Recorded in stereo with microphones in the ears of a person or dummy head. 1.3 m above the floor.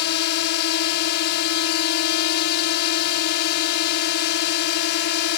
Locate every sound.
0.0 s a drone: 65° left (ahead or behind)